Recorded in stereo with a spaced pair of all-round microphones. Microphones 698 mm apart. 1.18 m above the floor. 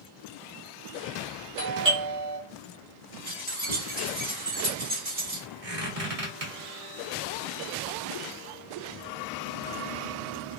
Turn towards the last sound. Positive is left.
turn(degrees=-55)  # may be behind; listen again after turning